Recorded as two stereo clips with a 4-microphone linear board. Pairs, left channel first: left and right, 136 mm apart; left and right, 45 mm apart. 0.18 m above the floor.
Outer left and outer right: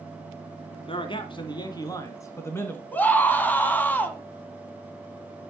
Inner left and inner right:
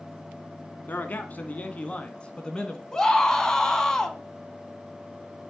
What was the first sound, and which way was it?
A man speaking, 40° left (ahead or behind).